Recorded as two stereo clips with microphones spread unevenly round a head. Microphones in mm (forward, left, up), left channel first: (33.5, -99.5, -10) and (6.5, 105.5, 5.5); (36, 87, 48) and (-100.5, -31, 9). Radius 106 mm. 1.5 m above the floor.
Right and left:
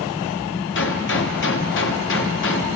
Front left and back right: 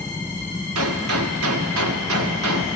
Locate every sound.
0.8 s a gunshot: 120° right, 0.8 m